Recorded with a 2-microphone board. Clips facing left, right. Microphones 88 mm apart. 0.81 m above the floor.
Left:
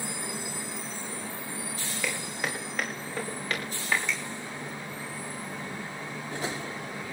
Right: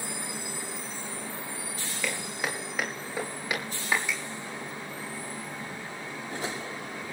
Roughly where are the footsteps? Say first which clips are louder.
Right 1 dB; centre.